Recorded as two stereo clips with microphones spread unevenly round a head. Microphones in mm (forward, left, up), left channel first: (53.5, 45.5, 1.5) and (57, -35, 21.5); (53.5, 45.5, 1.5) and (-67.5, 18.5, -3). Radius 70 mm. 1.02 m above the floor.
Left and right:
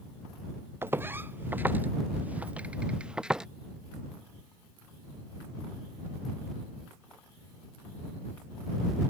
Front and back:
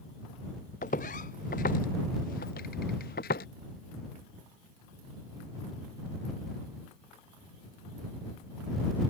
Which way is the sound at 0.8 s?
25° right.